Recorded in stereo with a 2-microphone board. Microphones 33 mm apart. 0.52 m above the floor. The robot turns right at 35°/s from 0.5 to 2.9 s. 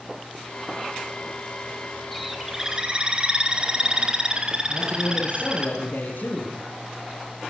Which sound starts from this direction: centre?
A bird, at 2.1 s.